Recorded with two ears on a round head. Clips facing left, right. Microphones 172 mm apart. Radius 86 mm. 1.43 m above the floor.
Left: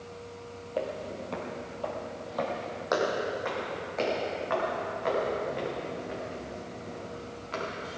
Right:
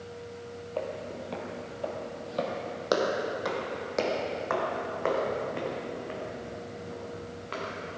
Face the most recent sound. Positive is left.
turn(degrees=-75)  # may be behind; listen again after turning